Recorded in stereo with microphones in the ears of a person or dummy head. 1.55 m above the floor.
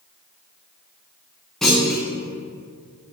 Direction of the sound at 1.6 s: 5° left (ahead or behind).